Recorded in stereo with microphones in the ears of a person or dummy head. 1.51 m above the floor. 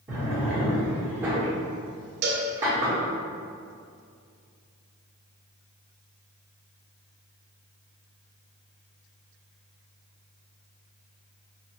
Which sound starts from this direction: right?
A cowbell, at 2.2 s.